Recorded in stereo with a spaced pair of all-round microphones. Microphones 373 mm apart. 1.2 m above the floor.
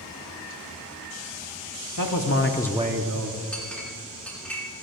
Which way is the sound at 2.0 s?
60° left (ahead or behind).